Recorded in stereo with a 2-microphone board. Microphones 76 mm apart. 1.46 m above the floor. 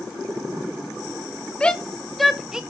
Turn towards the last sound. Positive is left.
turn(degrees=-10)  # may be behind; listen again after turning